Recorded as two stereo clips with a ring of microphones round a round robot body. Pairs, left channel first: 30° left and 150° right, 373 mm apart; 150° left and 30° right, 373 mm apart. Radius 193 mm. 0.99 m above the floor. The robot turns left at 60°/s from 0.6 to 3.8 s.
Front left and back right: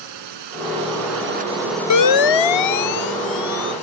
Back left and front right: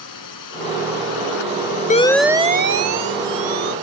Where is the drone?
170° right; by 3.8 s 5° right.